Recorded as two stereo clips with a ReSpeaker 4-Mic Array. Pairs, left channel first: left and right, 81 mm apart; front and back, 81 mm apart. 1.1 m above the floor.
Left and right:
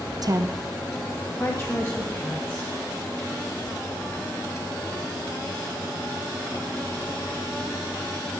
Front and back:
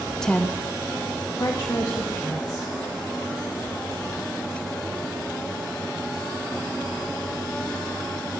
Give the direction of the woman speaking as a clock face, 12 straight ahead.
3 o'clock.